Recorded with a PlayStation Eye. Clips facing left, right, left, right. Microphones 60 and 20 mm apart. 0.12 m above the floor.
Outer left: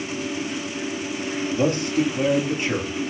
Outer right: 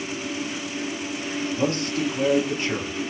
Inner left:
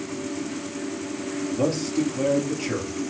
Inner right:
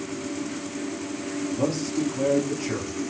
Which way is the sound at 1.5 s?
20° left (ahead or behind).